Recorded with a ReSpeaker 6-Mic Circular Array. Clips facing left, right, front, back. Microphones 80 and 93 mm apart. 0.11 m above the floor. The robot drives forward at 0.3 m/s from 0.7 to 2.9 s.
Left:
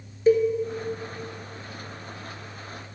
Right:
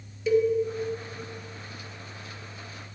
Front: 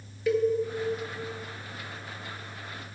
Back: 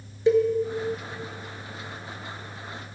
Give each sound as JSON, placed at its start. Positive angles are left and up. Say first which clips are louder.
{"t": 0.3, "sound": "a cowbell", "louder": "left 3 dB, back 5 dB", "azimuth_deg": 125, "distance_m": 1.1}